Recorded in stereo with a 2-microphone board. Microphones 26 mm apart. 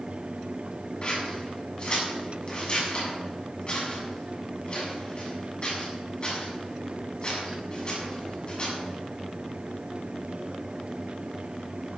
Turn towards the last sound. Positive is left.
turn(degrees=40)  # may be behind; listen again after turning